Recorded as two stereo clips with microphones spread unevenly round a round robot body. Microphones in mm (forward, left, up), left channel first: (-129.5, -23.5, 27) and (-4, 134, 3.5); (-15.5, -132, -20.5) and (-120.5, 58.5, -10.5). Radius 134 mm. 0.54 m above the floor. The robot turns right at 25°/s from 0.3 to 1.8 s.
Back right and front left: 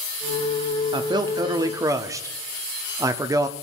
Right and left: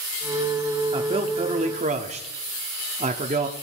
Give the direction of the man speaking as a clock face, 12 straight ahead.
10 o'clock.